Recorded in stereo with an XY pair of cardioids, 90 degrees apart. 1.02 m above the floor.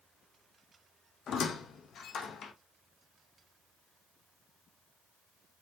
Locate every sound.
1.3 s a squeak: 65° left, 0.6 m